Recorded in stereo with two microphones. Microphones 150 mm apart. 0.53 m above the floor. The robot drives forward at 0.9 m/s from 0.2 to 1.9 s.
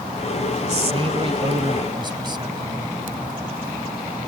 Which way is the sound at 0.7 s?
45° right (ahead or behind).